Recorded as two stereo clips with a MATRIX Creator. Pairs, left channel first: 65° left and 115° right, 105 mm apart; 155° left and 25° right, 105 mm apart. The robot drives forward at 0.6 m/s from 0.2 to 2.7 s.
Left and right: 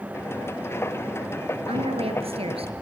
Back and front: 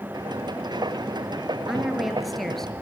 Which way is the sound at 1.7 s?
105° right.